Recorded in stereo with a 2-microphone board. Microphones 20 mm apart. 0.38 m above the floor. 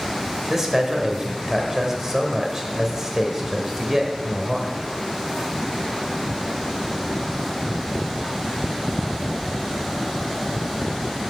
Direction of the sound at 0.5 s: 20° right (ahead or behind).